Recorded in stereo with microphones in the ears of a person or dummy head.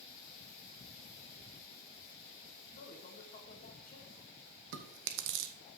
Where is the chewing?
60° right (ahead or behind), 0.8 m.